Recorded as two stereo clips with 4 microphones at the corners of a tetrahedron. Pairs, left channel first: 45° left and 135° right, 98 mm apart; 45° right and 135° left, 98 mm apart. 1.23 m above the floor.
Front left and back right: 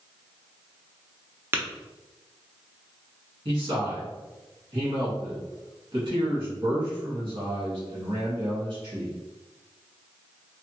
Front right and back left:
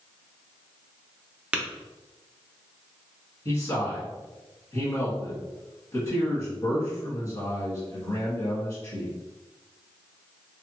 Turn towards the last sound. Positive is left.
turn(degrees=-95)